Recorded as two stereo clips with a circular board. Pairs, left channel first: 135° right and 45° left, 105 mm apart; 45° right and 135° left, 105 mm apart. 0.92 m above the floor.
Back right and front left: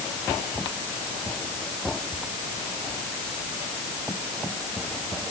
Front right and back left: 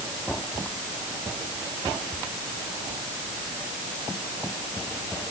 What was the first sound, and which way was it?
Only background noise.